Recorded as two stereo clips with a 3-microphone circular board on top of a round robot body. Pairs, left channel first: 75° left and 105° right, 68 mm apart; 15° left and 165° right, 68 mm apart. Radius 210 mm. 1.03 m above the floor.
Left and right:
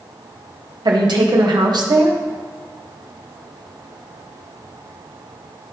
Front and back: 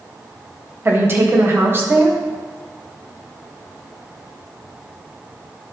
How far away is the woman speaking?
About 1.6 m.